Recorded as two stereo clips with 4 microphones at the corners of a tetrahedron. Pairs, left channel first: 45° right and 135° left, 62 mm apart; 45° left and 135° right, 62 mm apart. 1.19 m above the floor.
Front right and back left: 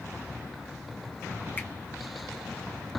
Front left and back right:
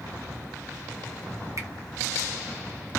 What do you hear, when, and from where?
1.6 s a finger snap: 105° right, 1.3 m